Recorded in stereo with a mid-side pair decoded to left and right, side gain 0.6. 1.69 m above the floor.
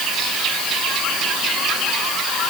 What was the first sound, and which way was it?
Only background noise.